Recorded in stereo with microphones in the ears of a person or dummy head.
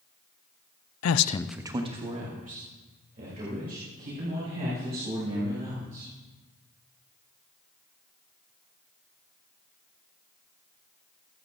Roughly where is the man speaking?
Left.